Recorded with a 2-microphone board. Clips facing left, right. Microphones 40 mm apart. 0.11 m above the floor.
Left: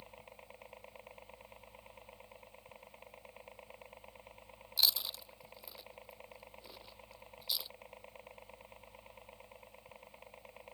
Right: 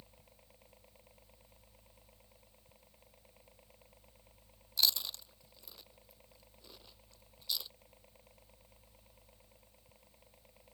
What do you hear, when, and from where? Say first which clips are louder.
0.0 s a helicopter: left 9 dB; 55° left (ahead or behind)
4.8 s chewing: even; 10° left (ahead or behind)